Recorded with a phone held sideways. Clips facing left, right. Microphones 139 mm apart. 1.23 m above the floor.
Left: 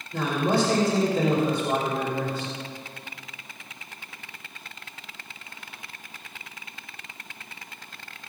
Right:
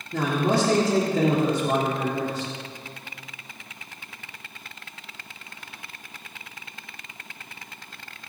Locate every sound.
0.1 s a man speaking: 75° right (ahead or behind), 3 m